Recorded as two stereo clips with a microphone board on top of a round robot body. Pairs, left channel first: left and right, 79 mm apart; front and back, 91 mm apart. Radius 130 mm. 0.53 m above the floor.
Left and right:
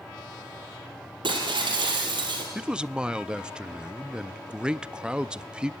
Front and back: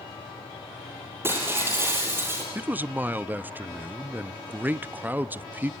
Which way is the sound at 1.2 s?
115° right.